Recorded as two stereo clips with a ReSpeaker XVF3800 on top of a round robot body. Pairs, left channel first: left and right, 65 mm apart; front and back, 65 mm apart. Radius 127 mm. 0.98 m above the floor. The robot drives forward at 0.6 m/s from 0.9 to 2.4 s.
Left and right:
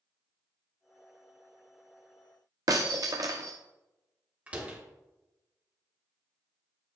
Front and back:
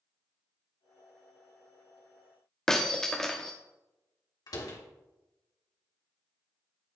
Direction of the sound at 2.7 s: 80° right.